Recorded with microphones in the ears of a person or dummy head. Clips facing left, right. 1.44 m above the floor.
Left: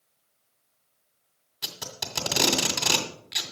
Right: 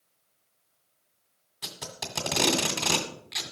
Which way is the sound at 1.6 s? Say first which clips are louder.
Even; centre (ahead or behind).